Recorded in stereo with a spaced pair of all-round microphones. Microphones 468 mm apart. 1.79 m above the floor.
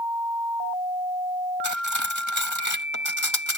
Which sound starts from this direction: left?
Cutlery clinking, at 1.6 s.